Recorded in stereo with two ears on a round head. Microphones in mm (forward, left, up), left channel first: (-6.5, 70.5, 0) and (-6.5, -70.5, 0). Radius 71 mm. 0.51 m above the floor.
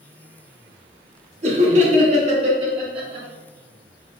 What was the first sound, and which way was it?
Laughter, 45° right (ahead or behind).